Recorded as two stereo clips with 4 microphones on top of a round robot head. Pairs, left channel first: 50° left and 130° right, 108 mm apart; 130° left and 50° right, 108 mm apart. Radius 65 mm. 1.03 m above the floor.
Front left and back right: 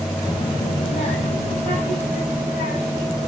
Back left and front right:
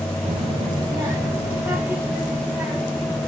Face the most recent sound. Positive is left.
turn(degrees=35)